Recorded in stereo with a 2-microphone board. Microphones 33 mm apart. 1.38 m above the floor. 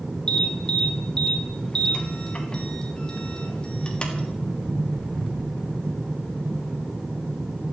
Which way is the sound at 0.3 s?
30° left (ahead or behind).